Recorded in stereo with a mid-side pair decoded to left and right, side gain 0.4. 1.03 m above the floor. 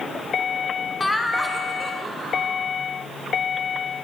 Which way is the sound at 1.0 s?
25° left.